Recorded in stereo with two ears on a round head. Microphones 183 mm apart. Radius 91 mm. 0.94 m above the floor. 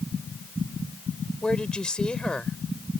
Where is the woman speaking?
5° left (ahead or behind).